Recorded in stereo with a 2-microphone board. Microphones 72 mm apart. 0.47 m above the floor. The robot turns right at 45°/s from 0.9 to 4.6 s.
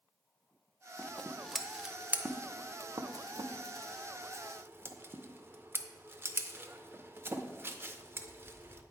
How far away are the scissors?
About 0.5 m.